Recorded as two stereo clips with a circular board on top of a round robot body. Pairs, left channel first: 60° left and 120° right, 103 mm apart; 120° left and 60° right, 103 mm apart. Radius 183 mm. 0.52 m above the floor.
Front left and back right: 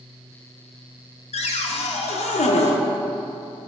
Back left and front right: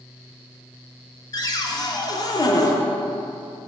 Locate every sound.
1.3 s a cupboard door: 65° left, 0.6 m